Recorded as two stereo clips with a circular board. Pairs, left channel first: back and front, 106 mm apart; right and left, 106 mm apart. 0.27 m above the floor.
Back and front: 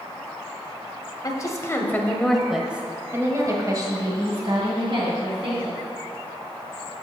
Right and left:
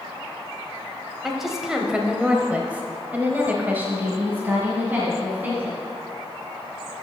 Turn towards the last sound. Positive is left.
turn(degrees=15)